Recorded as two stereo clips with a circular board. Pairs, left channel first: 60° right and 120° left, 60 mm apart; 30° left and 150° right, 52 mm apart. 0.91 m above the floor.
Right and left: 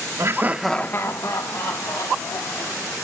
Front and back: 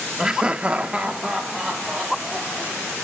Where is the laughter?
135° left, 0.8 m; by 2.9 s 65° right, 3 m.